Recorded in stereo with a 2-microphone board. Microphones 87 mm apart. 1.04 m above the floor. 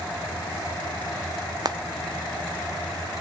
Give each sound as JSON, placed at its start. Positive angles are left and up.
{"t": 1.6, "sound": "frying", "side_deg": -50, "distance_m": 0.7}